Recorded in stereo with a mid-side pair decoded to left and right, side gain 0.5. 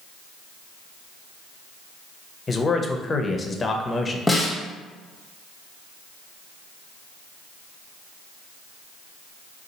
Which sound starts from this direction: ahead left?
A man speaking, at 2.5 s.